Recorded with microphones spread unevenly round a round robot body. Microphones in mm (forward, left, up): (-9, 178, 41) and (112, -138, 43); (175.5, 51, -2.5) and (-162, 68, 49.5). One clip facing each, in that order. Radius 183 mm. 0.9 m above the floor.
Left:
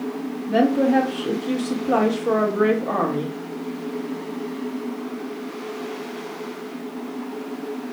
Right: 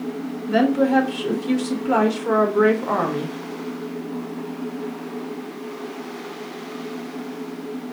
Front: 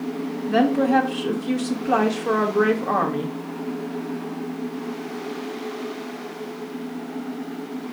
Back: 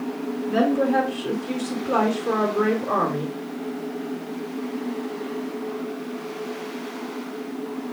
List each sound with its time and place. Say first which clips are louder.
0.5 s a woman speaking: even, front 2 dB; 5° right, 1.4 m